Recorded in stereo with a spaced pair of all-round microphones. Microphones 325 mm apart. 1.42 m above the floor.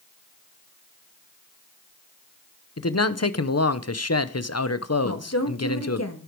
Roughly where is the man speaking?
Left.